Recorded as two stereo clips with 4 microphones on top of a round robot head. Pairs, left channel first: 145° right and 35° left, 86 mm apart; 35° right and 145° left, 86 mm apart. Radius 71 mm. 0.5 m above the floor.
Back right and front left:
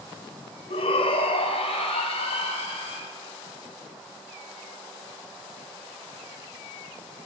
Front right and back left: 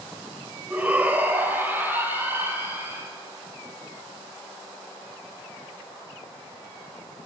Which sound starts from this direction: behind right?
A shout, at 0.7 s.